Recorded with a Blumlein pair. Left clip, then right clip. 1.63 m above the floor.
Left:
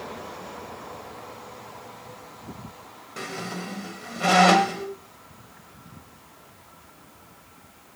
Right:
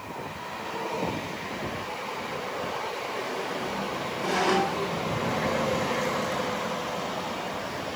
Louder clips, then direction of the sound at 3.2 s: Right 3 dB; 55° left.